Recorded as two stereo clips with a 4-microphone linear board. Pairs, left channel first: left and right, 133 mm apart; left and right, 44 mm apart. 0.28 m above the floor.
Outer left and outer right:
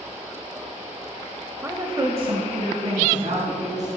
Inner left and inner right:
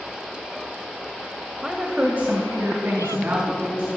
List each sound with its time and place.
1.6 s a woman speaking: 20° right (ahead or behind), 0.9 m; by 3.9 s 70° right (ahead or behind), 2.5 m